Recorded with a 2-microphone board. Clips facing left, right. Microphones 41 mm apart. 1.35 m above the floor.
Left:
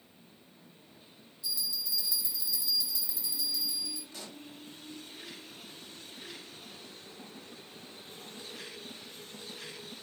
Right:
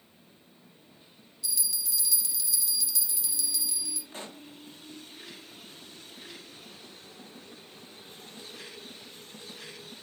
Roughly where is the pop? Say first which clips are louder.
Right 4 dB; right.